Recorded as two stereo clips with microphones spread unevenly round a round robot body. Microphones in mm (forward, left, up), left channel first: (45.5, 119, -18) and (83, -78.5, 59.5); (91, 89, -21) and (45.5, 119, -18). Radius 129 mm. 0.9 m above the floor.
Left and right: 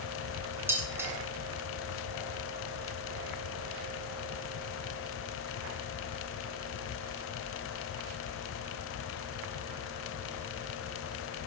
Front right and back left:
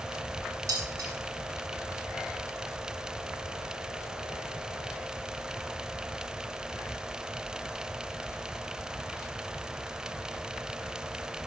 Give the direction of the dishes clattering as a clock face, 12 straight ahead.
5 o'clock.